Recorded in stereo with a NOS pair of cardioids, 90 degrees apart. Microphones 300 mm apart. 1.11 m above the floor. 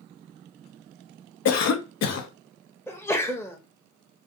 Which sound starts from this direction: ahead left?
A cough, at 1.4 s.